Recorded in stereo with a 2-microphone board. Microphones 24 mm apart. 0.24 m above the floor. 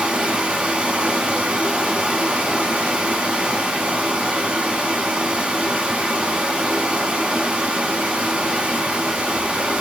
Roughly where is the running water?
Right.